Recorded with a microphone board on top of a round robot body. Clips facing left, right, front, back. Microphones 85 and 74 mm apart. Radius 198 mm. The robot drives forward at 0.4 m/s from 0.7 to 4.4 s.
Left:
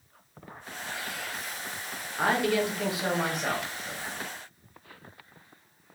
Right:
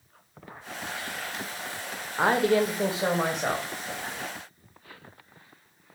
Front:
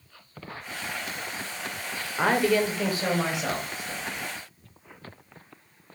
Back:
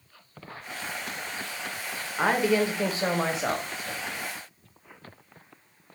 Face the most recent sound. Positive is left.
turn(degrees=-160)